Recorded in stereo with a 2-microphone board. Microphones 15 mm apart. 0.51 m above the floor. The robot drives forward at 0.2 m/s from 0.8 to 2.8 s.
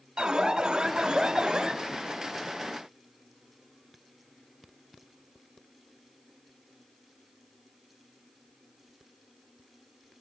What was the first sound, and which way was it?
An alarm, 55° right (ahead or behind).